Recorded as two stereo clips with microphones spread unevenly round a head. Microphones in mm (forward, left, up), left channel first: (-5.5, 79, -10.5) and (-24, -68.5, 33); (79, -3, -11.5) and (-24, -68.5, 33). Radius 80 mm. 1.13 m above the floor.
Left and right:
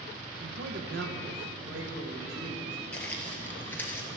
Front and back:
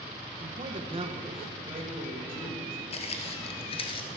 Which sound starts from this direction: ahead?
Footsteps, at 2.9 s.